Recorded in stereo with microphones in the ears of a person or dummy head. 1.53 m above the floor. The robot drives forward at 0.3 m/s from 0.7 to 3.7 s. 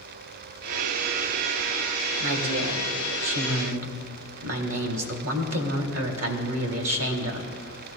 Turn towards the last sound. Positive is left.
turn(degrees=-75)  # may be behind; listen again after turning